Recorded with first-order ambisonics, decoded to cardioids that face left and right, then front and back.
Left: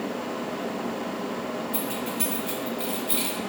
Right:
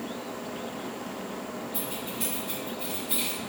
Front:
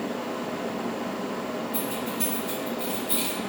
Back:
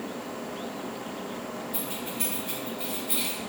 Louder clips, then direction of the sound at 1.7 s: Left 5 dB, front 4 dB; 100° left.